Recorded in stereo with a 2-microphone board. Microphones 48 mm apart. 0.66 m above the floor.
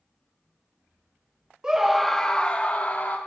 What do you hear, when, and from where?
1.6 s a scream: 15° right (ahead or behind), 0.6 m; by 3.2 s 35° left (ahead or behind), 1.1 m